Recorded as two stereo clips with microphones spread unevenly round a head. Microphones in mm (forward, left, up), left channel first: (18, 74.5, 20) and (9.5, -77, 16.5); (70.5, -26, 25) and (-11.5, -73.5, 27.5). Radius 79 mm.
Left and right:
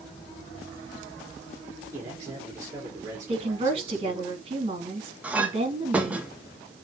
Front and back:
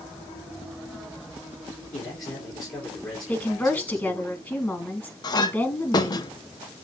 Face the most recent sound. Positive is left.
turn(degrees=-10)